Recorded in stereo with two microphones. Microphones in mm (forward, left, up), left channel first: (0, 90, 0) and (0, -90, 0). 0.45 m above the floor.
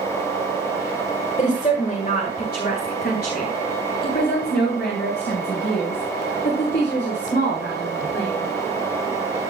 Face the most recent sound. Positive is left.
turn(degrees=80)